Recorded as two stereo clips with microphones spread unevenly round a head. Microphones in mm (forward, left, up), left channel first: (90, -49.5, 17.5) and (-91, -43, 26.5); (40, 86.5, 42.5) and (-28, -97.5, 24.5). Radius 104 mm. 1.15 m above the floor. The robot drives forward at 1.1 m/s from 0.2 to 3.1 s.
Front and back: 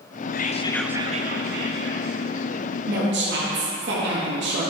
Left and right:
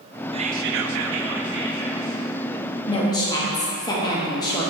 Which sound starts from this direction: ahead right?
Whispering, at 0.3 s.